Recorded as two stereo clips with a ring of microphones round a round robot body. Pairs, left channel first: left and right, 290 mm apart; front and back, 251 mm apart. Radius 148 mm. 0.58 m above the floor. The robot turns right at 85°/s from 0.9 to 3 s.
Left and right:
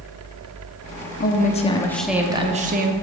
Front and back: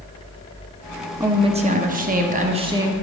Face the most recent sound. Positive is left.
turn(degrees=-100)